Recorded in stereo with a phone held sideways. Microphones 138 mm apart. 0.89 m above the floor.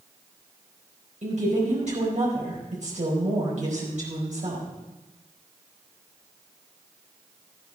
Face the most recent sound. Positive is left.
turn(degrees=-60)  # may be behind; listen again after turning